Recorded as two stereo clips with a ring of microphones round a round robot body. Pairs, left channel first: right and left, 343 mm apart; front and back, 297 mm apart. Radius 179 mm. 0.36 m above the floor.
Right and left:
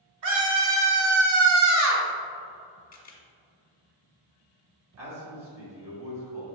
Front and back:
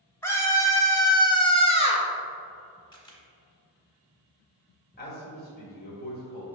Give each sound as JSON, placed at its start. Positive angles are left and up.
{"t": 0.2, "sound": "a scream", "azimuth_deg": 80, "distance_m": 2.0}
{"t": 2.9, "sound": "a camera shutter", "azimuth_deg": -60, "distance_m": 1.2}
{"t": 5.0, "sound": "a man speaking", "azimuth_deg": 50, "distance_m": 1.9}